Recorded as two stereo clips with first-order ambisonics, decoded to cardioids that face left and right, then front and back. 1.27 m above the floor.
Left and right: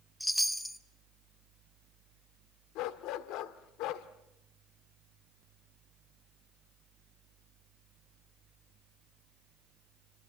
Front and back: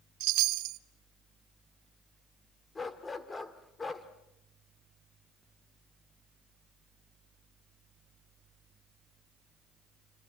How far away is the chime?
About 0.9 m.